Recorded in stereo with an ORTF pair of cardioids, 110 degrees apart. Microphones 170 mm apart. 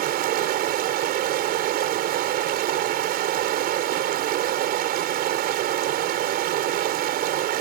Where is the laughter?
No laughter in this recording.